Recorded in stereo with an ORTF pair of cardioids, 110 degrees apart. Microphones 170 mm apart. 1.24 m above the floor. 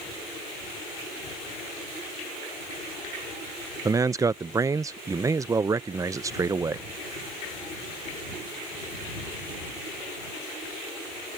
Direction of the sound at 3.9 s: 20° right.